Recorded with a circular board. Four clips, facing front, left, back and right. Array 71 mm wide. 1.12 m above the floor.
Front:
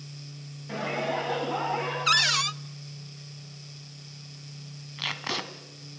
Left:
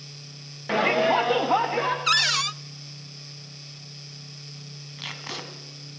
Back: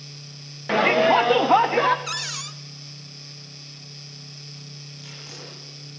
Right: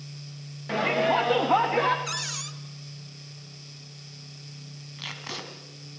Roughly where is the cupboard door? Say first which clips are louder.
Left 11 dB, front 8 dB; ahead left.